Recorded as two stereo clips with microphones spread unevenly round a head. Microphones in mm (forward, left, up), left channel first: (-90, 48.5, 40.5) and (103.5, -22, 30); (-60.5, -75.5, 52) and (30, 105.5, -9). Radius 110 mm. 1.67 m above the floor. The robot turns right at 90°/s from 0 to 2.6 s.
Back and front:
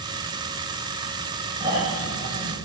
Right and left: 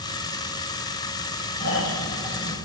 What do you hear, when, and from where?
1.6 s snoring: 100° right, 6.5 m; by 2.6 s 15° right, 6.5 m